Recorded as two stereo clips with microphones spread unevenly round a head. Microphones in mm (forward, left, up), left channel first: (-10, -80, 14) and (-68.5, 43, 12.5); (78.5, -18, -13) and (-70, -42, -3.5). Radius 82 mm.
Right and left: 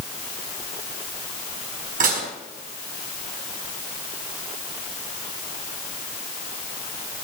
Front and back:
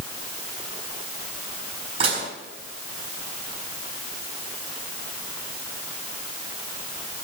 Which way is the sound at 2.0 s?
130° left.